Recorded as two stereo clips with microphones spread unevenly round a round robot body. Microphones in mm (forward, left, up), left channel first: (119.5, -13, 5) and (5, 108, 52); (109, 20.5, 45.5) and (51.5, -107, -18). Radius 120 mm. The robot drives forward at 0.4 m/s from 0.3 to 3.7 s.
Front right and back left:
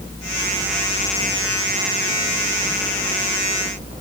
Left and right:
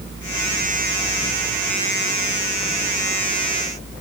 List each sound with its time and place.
Only background noise.